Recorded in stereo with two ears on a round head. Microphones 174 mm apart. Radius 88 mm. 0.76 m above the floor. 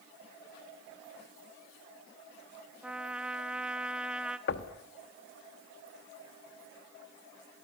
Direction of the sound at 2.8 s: 5° right (ahead or behind).